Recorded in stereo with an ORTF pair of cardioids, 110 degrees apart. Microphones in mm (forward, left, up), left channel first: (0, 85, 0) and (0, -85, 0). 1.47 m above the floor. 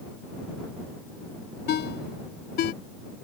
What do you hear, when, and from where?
1.7 s a ringtone: 70° left